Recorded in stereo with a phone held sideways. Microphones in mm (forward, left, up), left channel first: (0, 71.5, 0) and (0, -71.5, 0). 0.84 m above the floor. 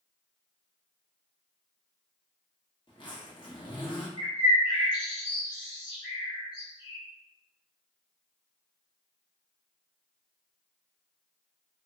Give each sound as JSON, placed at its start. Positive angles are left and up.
{"t": 2.9, "sound": "a zipper", "side_deg": 35, "distance_m": 1.0}
{"t": 4.2, "sound": "a bird", "side_deg": 35, "distance_m": 1.3}